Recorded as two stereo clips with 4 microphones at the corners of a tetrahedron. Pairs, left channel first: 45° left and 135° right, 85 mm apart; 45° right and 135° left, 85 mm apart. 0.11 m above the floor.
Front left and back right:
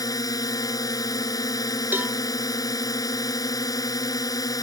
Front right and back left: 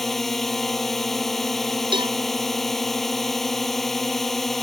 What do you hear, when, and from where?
0.0 s a drone: 40° left
1.9 s a cowbell: 155° left